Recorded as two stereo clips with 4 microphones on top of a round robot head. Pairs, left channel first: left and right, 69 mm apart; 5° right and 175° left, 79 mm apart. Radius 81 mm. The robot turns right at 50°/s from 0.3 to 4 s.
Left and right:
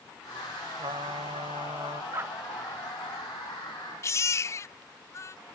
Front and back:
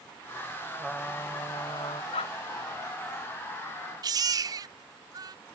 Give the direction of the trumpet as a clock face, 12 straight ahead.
3 o'clock.